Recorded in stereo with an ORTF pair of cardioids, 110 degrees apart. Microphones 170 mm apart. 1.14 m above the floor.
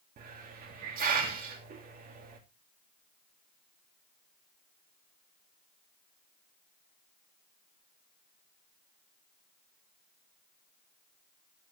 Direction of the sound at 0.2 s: 60° right.